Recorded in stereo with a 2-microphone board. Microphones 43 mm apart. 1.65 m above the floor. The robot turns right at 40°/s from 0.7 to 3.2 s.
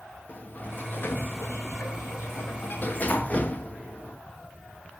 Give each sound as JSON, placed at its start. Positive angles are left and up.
{"t": 0.3, "sound": "a sliding door", "azimuth_deg": 40, "distance_m": 0.5}